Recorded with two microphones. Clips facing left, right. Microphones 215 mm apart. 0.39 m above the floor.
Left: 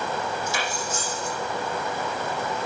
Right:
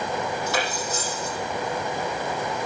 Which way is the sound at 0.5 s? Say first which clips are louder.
Right 3 dB; 70° right (ahead or behind).